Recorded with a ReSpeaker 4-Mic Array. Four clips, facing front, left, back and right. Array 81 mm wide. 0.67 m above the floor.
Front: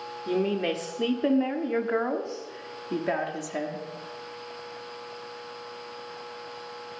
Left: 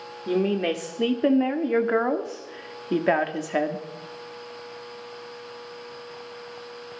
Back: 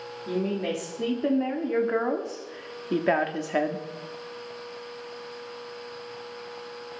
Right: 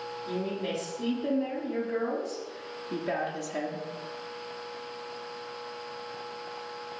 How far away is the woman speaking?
About 2 m.